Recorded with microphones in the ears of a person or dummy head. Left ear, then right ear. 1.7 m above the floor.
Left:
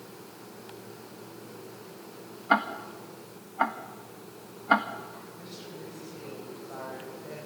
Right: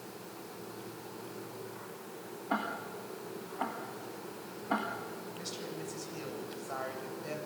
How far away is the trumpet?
I don't hear a trumpet.